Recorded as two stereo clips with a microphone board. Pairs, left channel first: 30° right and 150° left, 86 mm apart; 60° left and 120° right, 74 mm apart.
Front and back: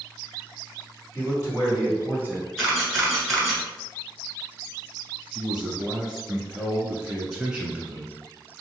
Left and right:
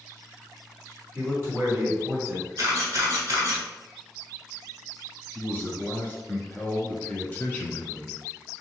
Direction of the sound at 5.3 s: 75° left.